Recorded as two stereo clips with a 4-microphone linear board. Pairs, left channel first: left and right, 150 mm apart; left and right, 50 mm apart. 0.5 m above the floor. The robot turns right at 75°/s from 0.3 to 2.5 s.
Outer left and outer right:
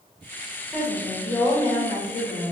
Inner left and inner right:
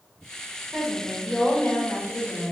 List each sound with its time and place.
0.7 s a woman speaking: 25° right, 1.5 m; by 2.5 s 110° left, 1.5 m